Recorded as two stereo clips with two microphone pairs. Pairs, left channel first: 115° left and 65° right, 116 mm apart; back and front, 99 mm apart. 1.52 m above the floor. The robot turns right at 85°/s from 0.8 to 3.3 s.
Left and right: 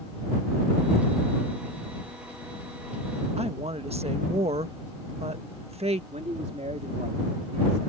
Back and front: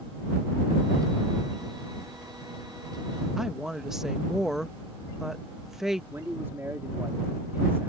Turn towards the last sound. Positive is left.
turn(degrees=-65)